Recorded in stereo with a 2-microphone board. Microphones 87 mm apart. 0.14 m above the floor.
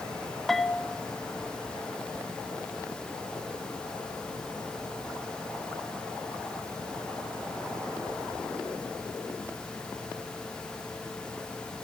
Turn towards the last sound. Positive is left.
turn(degrees=0)  # may be behind; listen again after turning